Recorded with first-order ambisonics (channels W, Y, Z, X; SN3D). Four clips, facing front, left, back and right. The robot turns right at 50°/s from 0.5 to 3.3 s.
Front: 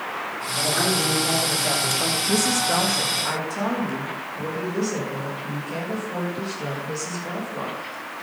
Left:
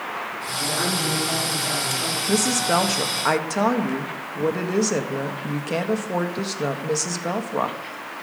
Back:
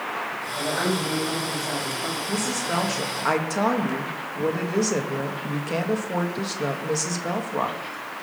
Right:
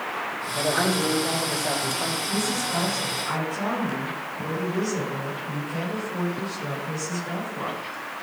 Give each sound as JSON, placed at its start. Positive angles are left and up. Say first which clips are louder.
{"t": 0.6, "sound": "a woman speaking", "louder": "right 1 dB, front 3 dB", "azimuth_deg": -95, "distance_m": 5.0}
{"t": 2.3, "sound": "a woman speaking", "louder": "left 5 dB, front 5 dB", "azimuth_deg": 65, "distance_m": 1.6}